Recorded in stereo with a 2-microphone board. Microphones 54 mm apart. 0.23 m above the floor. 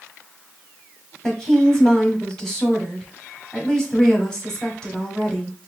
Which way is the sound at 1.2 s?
10° left (ahead or behind).